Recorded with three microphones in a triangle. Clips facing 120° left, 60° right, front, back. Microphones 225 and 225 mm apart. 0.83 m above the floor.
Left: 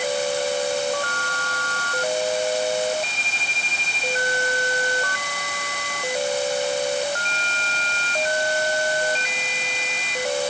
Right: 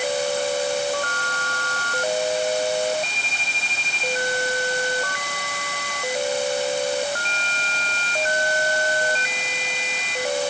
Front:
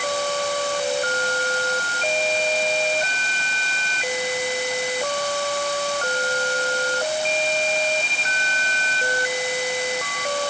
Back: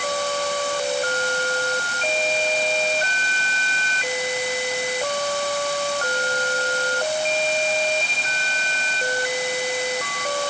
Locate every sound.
Only background noise.